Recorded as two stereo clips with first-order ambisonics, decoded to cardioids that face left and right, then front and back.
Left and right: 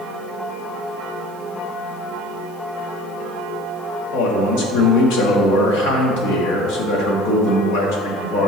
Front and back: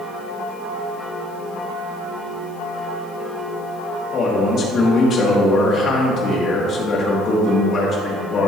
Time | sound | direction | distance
4.1 | a man speaking | 60° left | 1.6 m